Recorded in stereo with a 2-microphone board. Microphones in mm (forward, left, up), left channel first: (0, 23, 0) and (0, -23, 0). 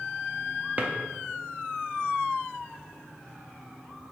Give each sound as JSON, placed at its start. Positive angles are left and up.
{"t": 0.8, "sound": "a drawer", "side_deg": -35, "distance_m": 0.6}